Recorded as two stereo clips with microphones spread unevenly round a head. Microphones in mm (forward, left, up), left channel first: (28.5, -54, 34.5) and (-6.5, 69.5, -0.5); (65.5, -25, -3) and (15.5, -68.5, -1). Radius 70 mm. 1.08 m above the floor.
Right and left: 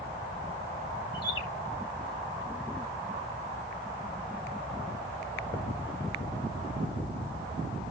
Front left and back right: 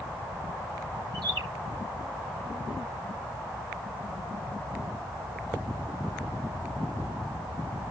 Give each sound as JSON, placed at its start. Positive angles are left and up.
{"t": 1.1, "sound": "a bird", "azimuth_deg": -135, "distance_m": 3.0}